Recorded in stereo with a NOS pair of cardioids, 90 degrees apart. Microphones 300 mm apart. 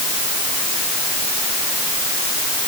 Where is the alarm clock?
No alarm clock in this recording.